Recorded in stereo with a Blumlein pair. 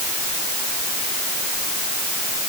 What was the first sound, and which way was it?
Only background noise.